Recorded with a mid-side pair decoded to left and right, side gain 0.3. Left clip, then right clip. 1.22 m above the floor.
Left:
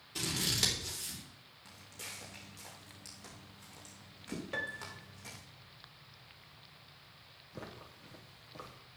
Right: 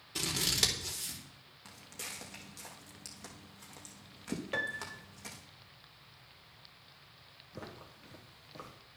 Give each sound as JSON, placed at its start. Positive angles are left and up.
{"t": 0.1, "sound": "scissors", "azimuth_deg": -40, "distance_m": 4.0}
{"t": 1.6, "sound": "footsteps", "azimuth_deg": -60, "distance_m": 4.5}
{"t": 4.5, "sound": "a piano", "azimuth_deg": -40, "distance_m": 1.3}
{"t": 7.5, "sound": "footsteps", "azimuth_deg": -10, "distance_m": 4.0}